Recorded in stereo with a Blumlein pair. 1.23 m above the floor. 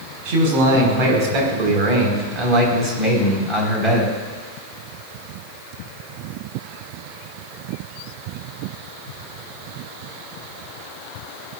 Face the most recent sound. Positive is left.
turn(degrees=-5)